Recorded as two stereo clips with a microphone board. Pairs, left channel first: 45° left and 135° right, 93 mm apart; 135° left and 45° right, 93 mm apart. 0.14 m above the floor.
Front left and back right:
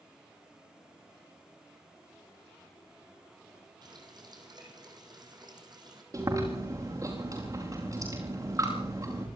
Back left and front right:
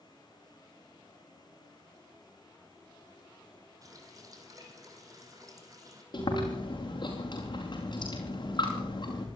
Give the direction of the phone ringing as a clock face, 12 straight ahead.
I don't hear a phone ringing.